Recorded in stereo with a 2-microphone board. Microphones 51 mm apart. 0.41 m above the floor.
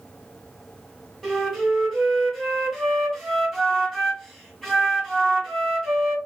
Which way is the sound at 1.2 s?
5° left (ahead or behind).